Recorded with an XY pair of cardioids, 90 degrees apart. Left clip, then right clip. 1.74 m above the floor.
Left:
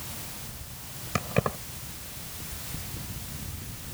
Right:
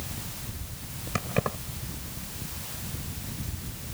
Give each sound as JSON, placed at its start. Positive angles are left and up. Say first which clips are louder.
{"t": 1.1, "sound": "keys jangling", "louder": "left 1 dB", "azimuth_deg": 15}